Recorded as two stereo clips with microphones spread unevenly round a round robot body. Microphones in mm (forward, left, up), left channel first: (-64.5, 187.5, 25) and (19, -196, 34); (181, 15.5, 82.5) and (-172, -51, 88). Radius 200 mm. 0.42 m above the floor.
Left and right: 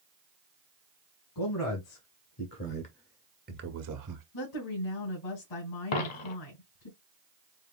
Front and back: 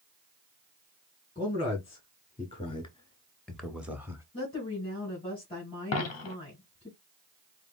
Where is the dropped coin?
65° left, 0.9 m.